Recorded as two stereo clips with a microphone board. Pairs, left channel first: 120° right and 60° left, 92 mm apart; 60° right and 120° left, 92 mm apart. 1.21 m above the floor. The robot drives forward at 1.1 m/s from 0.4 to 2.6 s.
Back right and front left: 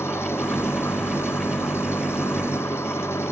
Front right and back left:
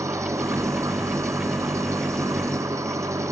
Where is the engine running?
175° left.